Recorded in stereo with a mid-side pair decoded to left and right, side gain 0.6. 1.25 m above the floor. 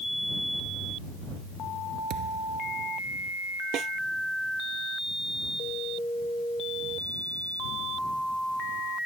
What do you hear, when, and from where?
2.1 s a thud: 65° right
3.7 s a snare drum: 55° right